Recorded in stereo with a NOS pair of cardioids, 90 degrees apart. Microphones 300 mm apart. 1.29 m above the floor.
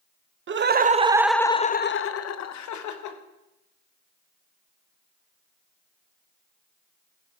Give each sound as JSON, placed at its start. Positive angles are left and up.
{"t": 0.5, "sound": "laughter", "azimuth_deg": -40, "distance_m": 0.9}